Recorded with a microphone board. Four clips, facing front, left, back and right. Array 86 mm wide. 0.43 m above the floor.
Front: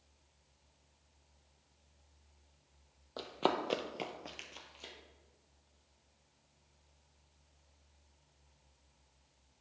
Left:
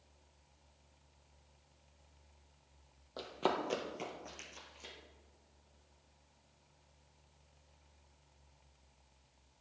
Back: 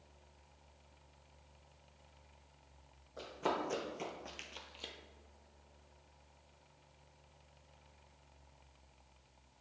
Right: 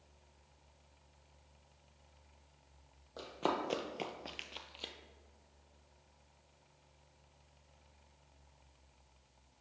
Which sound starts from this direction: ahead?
Running footsteps, at 3.2 s.